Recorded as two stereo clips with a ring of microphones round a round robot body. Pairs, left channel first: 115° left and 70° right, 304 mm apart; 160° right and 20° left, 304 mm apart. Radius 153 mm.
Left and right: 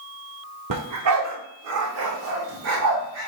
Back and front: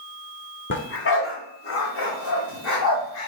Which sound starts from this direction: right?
A dog barking, at 0.7 s.